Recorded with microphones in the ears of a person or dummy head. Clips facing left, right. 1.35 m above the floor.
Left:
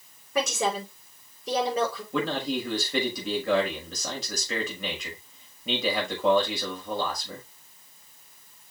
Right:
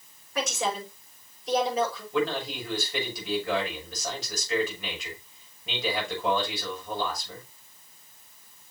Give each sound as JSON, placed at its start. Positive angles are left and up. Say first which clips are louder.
{"t": 0.3, "sound": "a woman speaking", "louder": "left 3 dB", "side_deg": 65, "distance_m": 6.5}
{"t": 2.1, "sound": "a man speaking", "louder": "right 1 dB", "side_deg": 90, "distance_m": 6.0}